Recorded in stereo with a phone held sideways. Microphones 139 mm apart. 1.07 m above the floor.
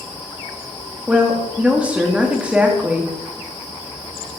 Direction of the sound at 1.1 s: 10° right (ahead or behind).